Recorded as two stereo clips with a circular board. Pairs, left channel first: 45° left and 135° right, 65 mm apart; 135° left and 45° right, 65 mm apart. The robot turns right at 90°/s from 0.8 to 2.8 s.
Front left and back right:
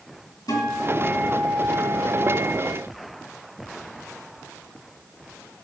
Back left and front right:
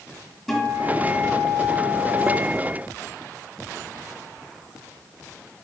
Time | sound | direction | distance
0.5 | a guitar | 50° left | 2.5 m